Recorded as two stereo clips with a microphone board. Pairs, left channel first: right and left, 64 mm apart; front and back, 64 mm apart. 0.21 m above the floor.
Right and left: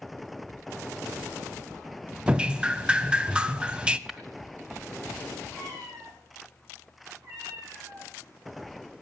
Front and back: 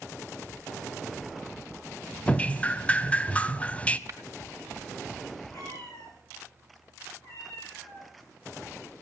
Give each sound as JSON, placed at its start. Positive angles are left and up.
{"t": 2.3, "sound": "dripping", "azimuth_deg": 35, "distance_m": 0.6}
{"t": 4.1, "sound": "tapping", "azimuth_deg": 170, "distance_m": 1.9}
{"t": 5.5, "sound": "a cat meowing", "azimuth_deg": 50, "distance_m": 9.5}